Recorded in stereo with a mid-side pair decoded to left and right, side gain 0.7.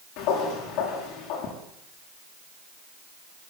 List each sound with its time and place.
0.2 s footsteps: 65° left, 7.5 m